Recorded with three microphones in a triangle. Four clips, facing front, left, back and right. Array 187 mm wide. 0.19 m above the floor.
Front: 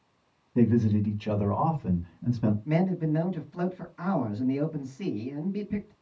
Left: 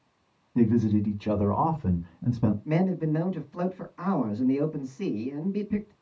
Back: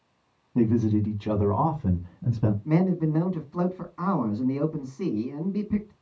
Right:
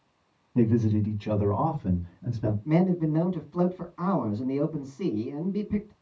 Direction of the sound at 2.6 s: 160° right.